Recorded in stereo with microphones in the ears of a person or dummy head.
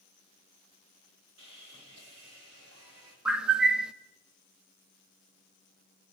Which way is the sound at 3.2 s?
5° right (ahead or behind).